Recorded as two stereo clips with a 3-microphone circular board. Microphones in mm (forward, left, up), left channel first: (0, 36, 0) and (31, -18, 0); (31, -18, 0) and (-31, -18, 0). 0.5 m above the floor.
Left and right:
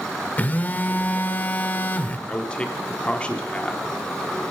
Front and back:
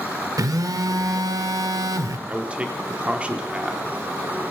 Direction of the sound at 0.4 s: Straight behind.